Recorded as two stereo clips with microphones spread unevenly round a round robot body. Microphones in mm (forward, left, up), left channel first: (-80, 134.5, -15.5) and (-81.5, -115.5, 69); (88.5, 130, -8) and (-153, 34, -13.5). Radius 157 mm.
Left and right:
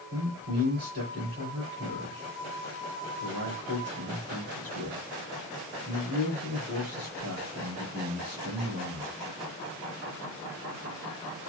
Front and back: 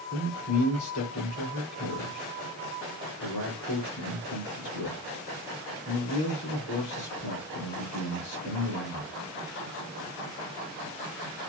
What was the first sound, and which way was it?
A man speaking, 30° right.